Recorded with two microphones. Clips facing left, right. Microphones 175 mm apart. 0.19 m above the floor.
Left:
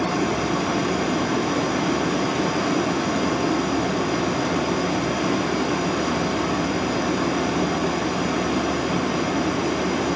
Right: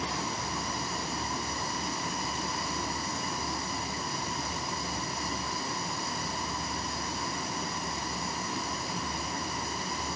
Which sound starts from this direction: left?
A vehicle, at 0.0 s.